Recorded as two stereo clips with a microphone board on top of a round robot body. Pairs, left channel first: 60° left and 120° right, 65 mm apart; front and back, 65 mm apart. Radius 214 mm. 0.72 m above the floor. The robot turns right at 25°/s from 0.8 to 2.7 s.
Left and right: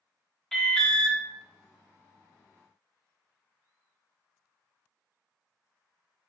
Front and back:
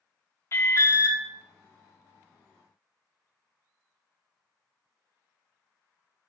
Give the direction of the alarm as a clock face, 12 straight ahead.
1 o'clock.